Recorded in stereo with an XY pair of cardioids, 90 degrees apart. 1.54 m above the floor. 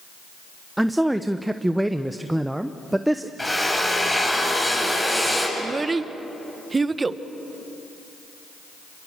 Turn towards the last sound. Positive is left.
turn(degrees=-30)